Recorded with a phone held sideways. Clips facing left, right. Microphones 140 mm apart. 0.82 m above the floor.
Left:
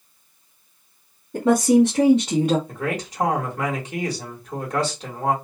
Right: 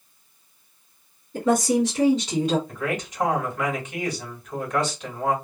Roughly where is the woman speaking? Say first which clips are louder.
Left 5 dB; left.